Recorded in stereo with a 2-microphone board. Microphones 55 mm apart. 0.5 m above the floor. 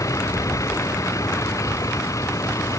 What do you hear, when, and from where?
0.0 s a vehicle: 80° left; by 2.8 s 75° left (ahead or behind)